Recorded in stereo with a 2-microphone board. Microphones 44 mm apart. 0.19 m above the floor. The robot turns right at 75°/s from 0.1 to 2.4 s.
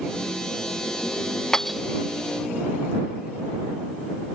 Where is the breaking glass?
15° left (ahead or behind); by 1.8 s 5° right (ahead or behind).